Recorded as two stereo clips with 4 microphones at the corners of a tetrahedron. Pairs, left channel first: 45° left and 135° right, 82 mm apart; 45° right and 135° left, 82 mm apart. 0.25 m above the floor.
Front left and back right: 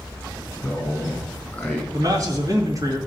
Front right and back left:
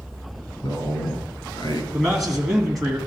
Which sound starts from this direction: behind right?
A man speaking, at 1.9 s.